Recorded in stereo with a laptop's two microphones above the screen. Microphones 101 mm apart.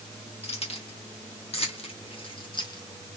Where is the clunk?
I don't hear a clunk.